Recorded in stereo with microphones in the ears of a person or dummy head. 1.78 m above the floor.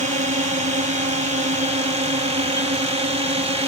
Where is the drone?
40° right (ahead or behind); by 3.7 s 30° right (ahead or behind).